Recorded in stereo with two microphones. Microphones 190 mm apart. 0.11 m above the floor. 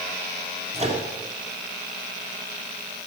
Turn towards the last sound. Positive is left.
turn(degrees=-35)  # may be behind; listen again after turning